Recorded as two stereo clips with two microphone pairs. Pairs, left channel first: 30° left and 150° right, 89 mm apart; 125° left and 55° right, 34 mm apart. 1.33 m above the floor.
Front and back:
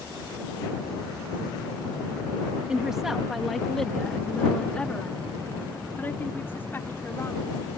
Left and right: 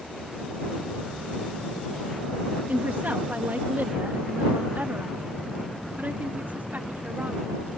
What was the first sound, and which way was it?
A woman speaking, 70° right.